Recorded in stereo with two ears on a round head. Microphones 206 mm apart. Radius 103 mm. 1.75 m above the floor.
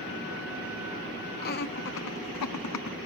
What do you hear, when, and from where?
1.4 s laughter: 40° left (ahead or behind); by 3.0 s 80° left